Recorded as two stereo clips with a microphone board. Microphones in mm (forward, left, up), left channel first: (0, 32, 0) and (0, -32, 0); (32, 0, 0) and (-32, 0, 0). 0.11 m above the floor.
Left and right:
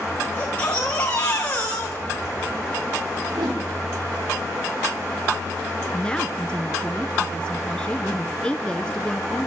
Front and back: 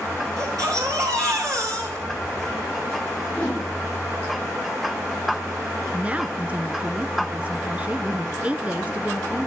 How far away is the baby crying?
About 7 m.